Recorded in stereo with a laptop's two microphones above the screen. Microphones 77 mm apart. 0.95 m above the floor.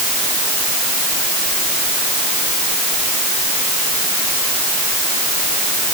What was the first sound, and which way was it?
Only background noise.